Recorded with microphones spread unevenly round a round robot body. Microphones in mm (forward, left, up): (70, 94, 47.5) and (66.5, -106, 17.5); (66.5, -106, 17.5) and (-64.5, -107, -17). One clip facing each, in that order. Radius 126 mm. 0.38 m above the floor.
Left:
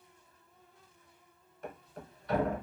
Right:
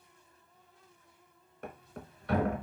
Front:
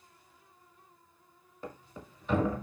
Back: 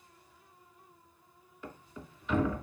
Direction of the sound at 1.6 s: 55° right.